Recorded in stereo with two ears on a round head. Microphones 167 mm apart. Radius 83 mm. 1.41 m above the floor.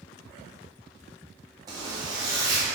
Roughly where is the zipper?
Right.